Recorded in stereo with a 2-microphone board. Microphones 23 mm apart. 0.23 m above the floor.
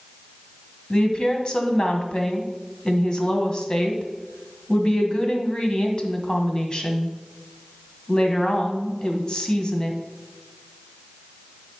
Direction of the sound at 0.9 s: 40° left (ahead or behind).